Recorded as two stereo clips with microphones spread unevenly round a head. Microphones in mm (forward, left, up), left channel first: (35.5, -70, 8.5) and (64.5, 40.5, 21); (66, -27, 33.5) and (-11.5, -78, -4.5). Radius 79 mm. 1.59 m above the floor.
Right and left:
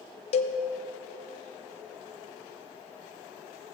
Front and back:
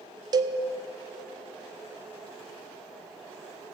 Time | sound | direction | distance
0.3 | a cowbell | 90° right | 0.5 m